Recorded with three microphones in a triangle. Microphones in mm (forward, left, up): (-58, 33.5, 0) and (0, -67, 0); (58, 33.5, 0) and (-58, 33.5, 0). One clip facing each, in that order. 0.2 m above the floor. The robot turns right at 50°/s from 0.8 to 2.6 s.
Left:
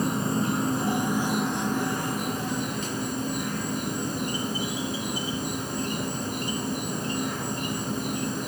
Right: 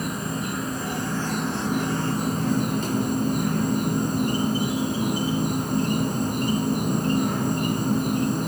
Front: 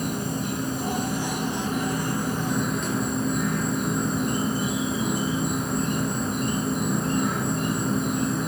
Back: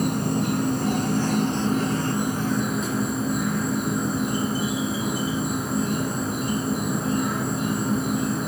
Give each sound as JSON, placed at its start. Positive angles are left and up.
{"t": 0.0, "sound": "an insect", "azimuth_deg": 175, "distance_m": 0.9}